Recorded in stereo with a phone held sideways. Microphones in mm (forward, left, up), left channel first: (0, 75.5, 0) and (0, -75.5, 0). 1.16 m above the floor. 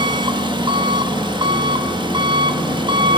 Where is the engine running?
30° right (ahead or behind), 1.9 m.